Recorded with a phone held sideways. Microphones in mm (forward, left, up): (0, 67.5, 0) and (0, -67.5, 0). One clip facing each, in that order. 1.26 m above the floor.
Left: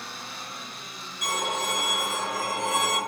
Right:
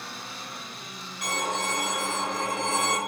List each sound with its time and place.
1.2 s a violin: 60° right (ahead or behind), 1.4 m